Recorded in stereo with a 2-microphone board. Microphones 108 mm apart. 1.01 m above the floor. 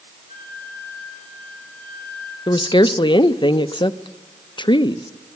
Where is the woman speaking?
45° left (ahead or behind), 0.7 m.